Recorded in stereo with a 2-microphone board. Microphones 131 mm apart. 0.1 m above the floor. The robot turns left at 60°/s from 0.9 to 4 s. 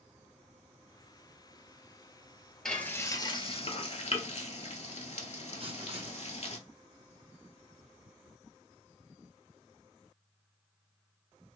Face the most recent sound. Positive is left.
turn(degrees=-50)  # may be behind; listen again after turning